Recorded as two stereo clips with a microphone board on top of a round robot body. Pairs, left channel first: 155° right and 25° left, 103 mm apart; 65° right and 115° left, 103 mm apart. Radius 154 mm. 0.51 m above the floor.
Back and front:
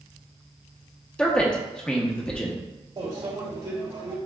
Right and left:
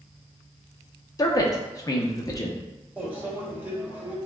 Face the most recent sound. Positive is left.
turn(degrees=40)